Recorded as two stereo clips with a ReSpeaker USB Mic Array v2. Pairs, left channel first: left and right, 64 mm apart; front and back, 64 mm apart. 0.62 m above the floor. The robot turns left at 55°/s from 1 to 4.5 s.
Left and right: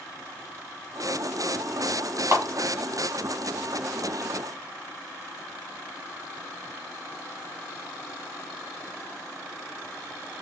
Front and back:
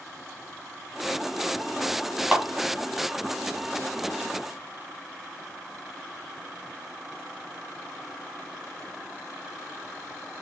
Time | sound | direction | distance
2.3 | a clap | 110° right | 1.3 m